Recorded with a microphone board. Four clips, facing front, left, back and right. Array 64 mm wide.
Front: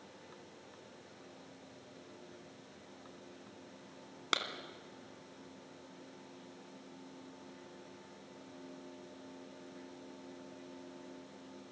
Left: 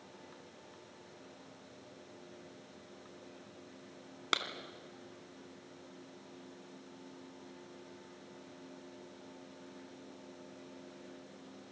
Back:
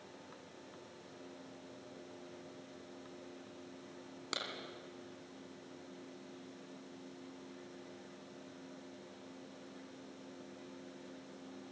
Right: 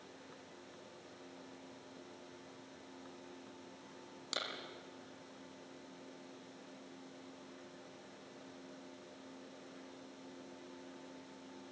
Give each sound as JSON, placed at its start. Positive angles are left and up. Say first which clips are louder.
{"t": 4.3, "sound": "a clap", "louder": "left 8 dB, front 7 dB", "azimuth_deg": 55, "distance_m": 3.0}